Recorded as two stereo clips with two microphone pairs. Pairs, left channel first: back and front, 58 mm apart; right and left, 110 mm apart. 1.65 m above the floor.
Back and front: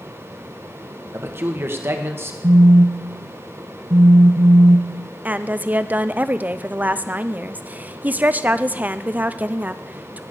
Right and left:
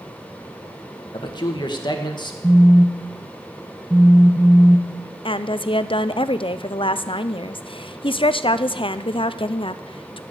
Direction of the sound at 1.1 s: 45° right.